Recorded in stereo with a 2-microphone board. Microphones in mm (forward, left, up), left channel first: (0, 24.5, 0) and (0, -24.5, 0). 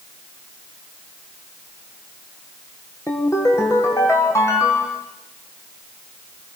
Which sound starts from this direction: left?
A ringtone, at 3.1 s.